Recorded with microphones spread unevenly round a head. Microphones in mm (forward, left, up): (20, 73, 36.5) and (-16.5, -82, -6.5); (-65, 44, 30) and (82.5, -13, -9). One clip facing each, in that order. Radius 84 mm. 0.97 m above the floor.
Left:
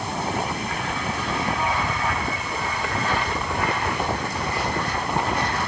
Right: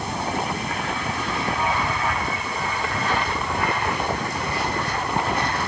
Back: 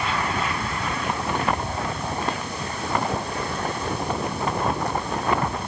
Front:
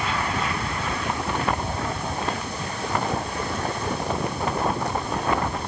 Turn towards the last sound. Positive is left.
No sound to turn to.